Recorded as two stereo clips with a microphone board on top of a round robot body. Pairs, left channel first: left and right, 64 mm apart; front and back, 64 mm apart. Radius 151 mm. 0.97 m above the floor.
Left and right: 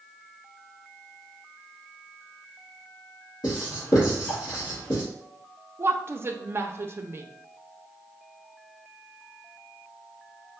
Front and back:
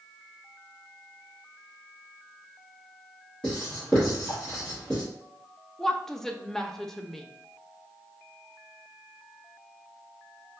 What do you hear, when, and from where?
3.4 s writing: 80° left, 1.8 m
5.8 s a woman speaking: 80° right, 0.7 m